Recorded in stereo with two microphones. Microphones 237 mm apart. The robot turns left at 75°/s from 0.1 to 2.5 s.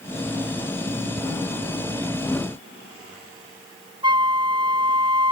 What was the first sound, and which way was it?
Ticking, 20° left (ahead or behind).